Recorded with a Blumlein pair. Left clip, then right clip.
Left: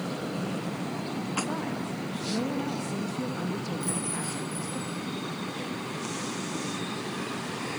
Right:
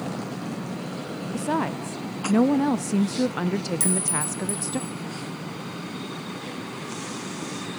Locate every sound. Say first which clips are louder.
1.3 s a woman speaking: right 7 dB; 30° right, 1.0 m
3.8 s a clink: right 5 dB; 45° right, 6 m